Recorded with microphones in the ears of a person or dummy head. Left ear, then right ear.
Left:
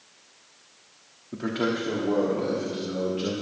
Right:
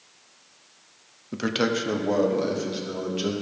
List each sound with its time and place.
1.3 s a man speaking: 75° right (ahead or behind), 0.8 m; by 3.3 s 80° right, 2.5 m